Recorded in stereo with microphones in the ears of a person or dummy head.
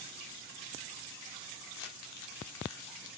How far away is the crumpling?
About 0.9 m.